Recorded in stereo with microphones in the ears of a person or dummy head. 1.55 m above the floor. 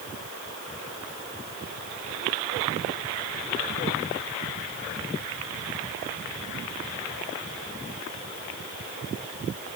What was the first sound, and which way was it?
Only background noise.